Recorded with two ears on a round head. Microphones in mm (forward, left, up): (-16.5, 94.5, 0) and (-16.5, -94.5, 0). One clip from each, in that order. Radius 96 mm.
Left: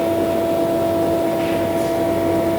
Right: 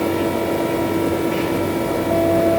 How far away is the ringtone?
No ringtone in this recording.